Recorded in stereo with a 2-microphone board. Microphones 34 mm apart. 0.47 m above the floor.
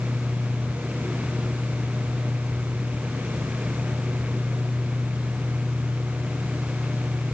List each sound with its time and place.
Only background noise.